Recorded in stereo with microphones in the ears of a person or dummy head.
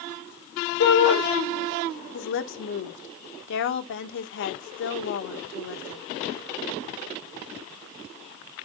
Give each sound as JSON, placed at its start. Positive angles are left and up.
{"t": 0.8, "sound": "a shout", "side_deg": 60, "distance_m": 2.0}
{"t": 2.1, "sound": "a woman speaking", "side_deg": 60, "distance_m": 1.3}